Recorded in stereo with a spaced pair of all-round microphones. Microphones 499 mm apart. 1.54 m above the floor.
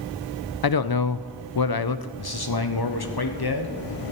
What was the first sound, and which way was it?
A man speaking, 45° left (ahead or behind).